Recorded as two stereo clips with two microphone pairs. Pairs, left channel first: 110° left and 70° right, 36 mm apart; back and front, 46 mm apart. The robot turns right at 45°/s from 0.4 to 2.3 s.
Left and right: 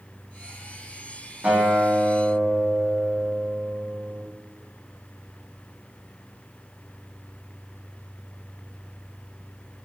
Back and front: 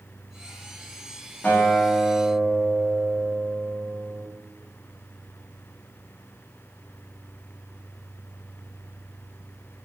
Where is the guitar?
120° right, 1.0 m; by 4.2 s 80° right, 1.0 m.